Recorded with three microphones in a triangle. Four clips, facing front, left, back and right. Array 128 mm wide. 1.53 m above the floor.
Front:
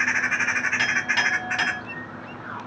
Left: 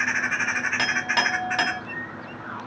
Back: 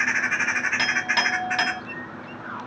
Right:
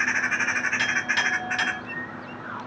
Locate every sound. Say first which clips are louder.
0.8 s a clink: left 2 dB, back 1 dB; 115° left, 1.8 m